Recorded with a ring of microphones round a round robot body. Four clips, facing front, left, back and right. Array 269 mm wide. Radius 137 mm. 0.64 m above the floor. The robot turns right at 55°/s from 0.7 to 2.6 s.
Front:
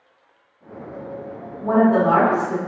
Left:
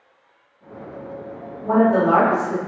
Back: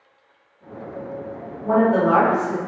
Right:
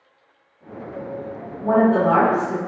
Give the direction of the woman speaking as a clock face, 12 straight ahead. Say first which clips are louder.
Even, front 1 dB; 2 o'clock.